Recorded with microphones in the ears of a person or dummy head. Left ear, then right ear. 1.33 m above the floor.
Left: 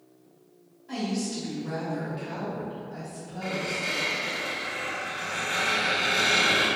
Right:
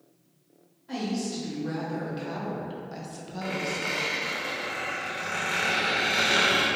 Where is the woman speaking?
10° right (ahead or behind), 1.5 m; by 3.9 s 80° right, 0.7 m.